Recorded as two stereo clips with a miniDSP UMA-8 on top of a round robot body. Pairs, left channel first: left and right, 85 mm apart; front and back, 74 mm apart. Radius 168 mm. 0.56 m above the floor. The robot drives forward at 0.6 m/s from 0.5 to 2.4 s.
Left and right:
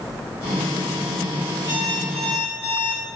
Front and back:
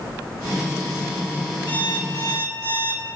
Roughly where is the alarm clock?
Ahead right.